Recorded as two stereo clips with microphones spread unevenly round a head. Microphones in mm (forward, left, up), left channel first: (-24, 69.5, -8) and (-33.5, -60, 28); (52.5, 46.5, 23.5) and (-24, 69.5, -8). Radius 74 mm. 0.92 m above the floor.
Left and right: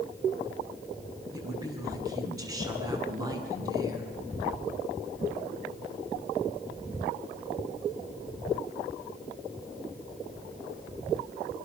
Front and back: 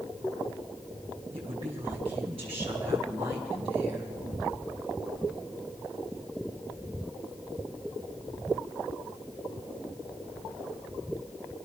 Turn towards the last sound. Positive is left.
turn(degrees=-155)